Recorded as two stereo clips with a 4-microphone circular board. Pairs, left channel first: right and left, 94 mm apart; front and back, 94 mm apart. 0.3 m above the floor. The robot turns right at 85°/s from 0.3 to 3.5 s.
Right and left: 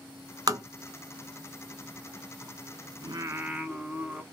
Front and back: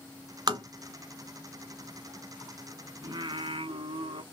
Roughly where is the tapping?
Behind left.